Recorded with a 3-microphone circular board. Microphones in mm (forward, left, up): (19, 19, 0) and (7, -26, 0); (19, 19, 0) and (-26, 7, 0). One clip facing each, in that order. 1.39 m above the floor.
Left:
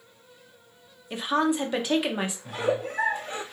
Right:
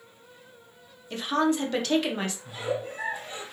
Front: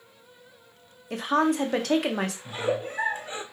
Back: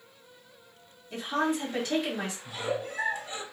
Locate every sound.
1.1 s a woman speaking: 5° left, 0.8 m
2.5 s a giggle: 70° left, 0.7 m